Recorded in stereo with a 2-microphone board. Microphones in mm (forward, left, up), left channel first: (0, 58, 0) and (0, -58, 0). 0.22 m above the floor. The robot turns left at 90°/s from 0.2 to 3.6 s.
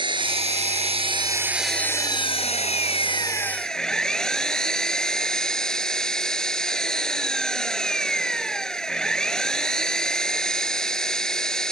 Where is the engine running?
45° right; by 11.7 s 5° left.